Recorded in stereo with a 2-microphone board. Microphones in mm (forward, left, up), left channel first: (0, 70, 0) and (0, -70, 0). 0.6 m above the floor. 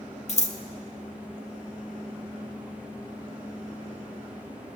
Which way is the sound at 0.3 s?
50° left (ahead or behind).